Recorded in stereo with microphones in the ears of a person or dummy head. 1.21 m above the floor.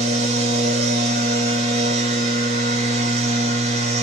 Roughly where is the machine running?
Right.